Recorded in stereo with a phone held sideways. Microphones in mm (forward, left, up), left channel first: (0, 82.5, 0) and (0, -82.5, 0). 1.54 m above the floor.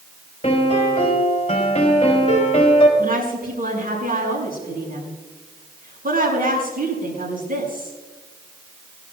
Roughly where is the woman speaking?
Right.